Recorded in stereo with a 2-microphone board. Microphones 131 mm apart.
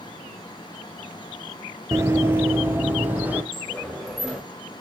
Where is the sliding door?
Centre (ahead or behind), 3 m.